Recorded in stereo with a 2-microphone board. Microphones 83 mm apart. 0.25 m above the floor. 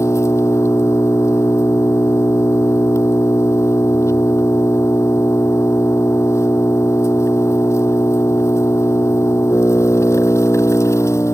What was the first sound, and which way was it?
An engine running, 35° left (ahead or behind).